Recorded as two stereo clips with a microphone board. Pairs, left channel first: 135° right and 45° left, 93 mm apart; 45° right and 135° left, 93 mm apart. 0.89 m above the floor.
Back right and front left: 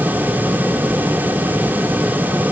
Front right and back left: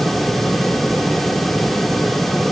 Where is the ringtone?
I don't hear a ringtone.